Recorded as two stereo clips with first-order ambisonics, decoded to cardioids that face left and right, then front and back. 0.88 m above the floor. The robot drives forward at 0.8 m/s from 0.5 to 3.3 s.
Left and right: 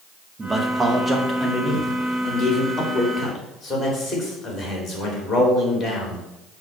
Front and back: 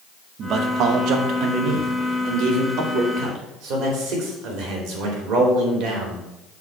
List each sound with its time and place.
0.4 s a man speaking: 160° right, 1.0 m; by 6.3 s 175° right, 3 m